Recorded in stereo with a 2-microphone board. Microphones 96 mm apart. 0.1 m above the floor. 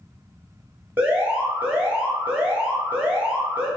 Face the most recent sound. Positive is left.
turn(degrees=-15)  # may be behind; listen again after turning